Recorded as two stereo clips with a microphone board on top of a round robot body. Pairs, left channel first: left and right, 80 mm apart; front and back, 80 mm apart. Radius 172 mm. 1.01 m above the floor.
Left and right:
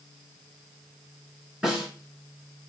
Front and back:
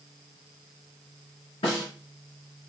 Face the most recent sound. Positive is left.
turn(degrees=-15)